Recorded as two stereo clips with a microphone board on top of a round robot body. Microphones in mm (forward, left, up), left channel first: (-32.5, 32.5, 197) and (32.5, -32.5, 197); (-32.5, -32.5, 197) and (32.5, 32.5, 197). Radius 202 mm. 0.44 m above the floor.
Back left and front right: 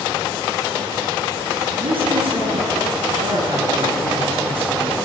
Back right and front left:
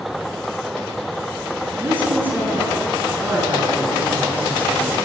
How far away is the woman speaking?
About 9.5 m.